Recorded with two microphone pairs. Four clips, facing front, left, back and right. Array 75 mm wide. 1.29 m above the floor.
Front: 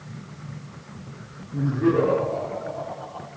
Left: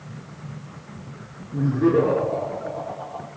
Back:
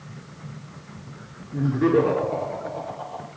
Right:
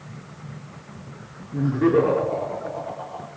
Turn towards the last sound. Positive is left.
turn(degrees=-130)